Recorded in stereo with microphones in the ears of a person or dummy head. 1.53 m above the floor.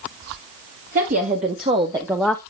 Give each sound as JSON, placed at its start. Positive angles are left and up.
{"t": 0.9, "sound": "a woman speaking", "side_deg": -45, "distance_m": 1.6}